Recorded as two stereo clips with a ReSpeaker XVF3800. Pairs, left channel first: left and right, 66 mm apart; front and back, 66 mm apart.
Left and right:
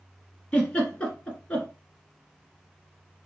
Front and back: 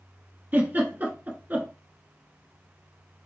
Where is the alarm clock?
No alarm clock in this recording.